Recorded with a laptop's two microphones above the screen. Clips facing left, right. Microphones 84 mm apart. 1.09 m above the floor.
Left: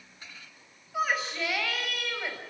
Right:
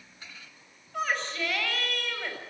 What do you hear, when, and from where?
0.9 s a shout: 10° left (ahead or behind), 7 m